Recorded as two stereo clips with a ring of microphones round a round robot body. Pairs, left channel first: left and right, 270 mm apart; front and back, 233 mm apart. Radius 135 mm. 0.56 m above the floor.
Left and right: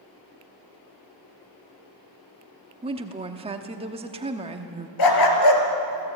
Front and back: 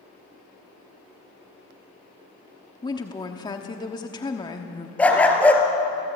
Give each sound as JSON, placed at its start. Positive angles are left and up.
{"t": 2.8, "sound": "a woman speaking", "azimuth_deg": -50, "distance_m": 1.1}
{"t": 5.0, "sound": "a dog barking", "azimuth_deg": 85, "distance_m": 3.0}